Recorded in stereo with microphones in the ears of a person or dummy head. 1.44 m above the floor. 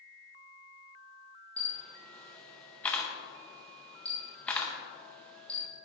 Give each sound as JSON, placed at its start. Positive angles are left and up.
{"t": 1.6, "sound": "a camera shutter", "side_deg": 10, "distance_m": 0.7}